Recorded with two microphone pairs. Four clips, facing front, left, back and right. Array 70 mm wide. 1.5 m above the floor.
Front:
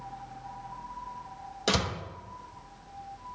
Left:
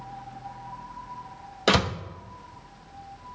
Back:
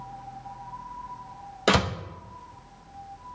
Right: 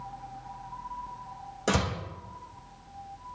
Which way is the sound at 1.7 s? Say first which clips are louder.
Left 5 dB, back 6 dB; 135° left.